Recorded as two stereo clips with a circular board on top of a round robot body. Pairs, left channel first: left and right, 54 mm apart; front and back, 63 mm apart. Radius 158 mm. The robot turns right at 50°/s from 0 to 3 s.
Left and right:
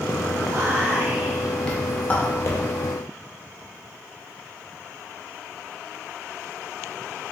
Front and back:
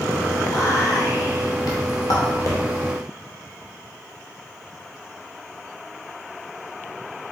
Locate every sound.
0.5 s whispering: 55° right, 0.6 m; by 2.6 s 50° left, 0.6 m